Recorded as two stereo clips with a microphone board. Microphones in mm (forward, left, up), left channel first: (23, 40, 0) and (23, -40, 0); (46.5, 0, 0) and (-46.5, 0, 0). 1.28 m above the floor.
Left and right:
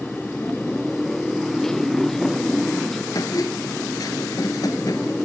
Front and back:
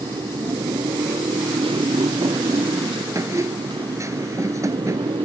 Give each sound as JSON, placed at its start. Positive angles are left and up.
{"t": 0.0, "sound": "a motorcycle", "azimuth_deg": 175}
{"t": 3.1, "sound": "a squeak", "azimuth_deg": 125}